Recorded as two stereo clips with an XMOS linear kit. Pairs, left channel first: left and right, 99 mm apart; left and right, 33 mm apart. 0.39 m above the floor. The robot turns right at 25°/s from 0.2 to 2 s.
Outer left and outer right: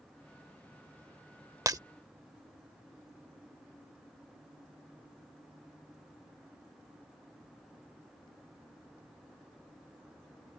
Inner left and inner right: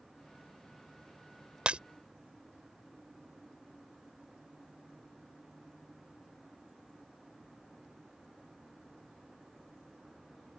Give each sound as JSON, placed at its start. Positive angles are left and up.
{"t": 1.7, "sound": "breaking glass", "side_deg": -35}